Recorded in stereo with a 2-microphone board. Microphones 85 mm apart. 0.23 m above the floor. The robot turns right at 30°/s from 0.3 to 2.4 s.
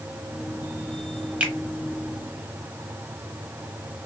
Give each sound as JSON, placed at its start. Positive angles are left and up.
{"t": 1.4, "sound": "a finger snap", "side_deg": -15, "distance_m": 0.8}